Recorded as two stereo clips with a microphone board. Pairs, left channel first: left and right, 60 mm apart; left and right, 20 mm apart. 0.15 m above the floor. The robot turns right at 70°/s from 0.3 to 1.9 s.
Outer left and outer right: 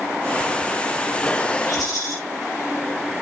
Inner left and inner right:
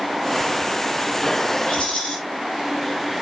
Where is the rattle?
90° left, 7 m; by 2.1 s 75° left (ahead or behind), 7 m.